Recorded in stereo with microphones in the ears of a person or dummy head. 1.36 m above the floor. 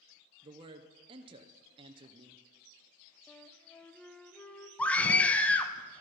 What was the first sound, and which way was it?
A man speaking, 35° right (ahead or behind).